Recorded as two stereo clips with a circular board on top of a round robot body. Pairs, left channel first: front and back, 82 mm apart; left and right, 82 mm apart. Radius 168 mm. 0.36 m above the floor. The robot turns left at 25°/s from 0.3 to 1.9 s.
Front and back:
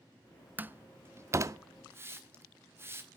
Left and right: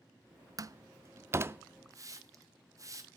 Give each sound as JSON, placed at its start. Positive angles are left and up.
{"t": 0.6, "sound": "a door slam", "azimuth_deg": -120, "distance_m": 0.6}
{"t": 1.9, "sound": "a hiss", "azimuth_deg": -125, "distance_m": 1.4}